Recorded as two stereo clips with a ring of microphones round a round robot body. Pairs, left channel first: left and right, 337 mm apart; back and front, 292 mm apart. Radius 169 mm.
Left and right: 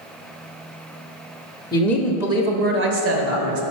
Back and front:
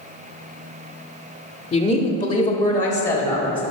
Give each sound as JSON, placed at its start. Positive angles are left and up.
{"t": 1.7, "sound": "a woman speaking", "azimuth_deg": 145, "distance_m": 0.9}